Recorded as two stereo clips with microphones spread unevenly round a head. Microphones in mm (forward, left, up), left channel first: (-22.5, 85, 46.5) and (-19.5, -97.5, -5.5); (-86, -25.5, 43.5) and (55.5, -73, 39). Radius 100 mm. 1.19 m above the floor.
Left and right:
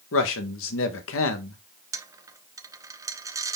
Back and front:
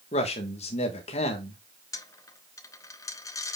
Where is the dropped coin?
Straight behind, 0.5 m.